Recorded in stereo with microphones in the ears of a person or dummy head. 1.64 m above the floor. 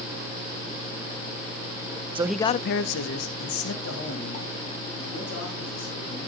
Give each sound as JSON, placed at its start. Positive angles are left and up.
{"t": 2.1, "sound": "a man speaking", "side_deg": -30, "distance_m": 0.5}